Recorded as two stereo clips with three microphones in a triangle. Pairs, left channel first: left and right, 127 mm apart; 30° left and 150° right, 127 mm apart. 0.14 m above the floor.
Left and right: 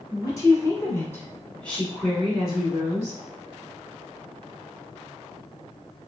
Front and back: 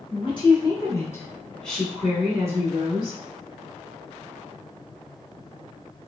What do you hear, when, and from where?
0.1 s a woman speaking: 40° left, 1.4 m; by 3.2 s 155° right, 1.3 m